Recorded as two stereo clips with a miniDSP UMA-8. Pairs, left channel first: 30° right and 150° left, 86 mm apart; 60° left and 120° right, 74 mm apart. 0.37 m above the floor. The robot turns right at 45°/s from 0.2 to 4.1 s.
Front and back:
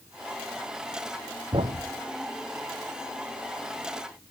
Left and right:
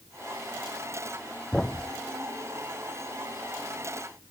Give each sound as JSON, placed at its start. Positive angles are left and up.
{"t": 1.5, "sound": "a thud", "azimuth_deg": 145}